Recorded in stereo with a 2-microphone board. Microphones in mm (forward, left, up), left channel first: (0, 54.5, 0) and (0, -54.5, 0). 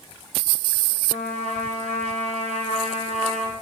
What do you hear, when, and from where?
1.1 s a trumpet: 85° left, 3 m